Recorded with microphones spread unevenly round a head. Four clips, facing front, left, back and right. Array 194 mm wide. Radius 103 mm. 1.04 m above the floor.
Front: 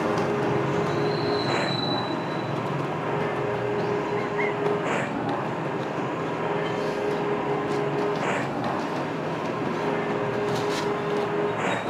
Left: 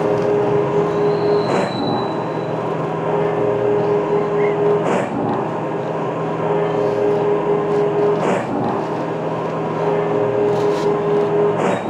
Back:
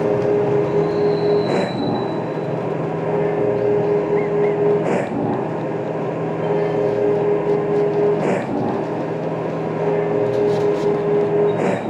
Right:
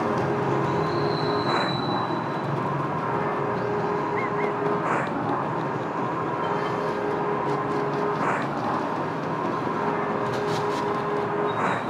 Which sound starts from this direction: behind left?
A machine running, at 0.0 s.